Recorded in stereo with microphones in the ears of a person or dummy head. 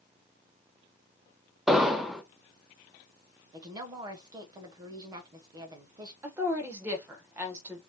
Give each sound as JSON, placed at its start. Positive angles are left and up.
{"t": 1.7, "sound": "an explosion", "side_deg": 0, "distance_m": 0.8}
{"t": 3.5, "sound": "a woman speaking", "side_deg": -20, "distance_m": 1.2}
{"t": 6.2, "sound": "a woman speaking", "side_deg": -15, "distance_m": 0.9}